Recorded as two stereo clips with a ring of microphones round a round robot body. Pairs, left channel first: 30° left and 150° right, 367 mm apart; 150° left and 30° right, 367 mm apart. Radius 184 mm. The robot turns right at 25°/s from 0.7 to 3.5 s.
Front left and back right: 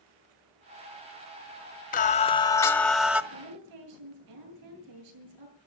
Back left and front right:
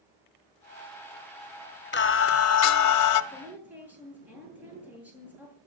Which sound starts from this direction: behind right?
A woman speaking, at 3.3 s.